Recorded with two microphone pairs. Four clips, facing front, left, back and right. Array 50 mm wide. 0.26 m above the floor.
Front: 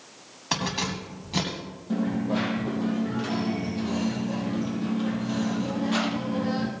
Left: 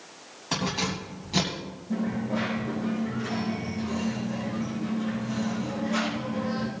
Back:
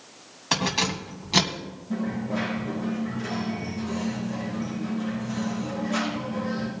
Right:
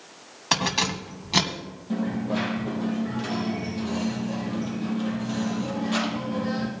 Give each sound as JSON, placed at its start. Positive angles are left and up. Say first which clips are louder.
{"t": 0.5, "sound": "keys jangling", "louder": "right 4 dB, back 3 dB", "azimuth_deg": -105, "distance_m": 1.4}
{"t": 1.9, "sound": "a dropped coin", "louder": "right 2 dB, front 2 dB", "azimuth_deg": -50, "distance_m": 4.0}